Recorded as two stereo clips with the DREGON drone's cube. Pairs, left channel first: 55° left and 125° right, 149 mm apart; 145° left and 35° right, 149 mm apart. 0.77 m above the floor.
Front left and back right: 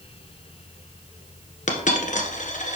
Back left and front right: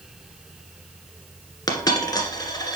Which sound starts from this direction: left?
A dropped coin, at 1.7 s.